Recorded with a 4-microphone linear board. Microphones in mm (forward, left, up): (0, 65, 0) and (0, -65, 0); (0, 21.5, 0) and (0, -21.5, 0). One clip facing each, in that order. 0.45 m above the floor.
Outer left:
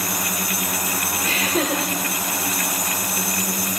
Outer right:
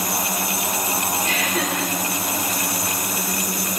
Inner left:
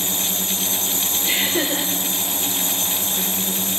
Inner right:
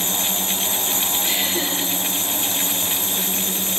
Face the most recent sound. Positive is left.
turn(degrees=30)  # may be behind; listen again after turning